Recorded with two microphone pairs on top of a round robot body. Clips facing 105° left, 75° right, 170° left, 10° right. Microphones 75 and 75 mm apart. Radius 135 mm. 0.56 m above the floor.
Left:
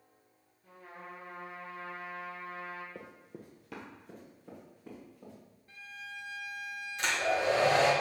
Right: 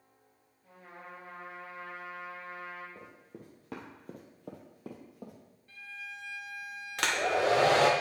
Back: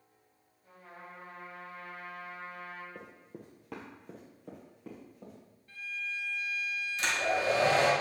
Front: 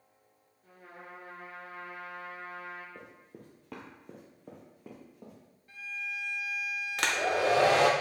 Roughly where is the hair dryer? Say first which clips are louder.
Right 2 dB, front 2 dB; ahead right.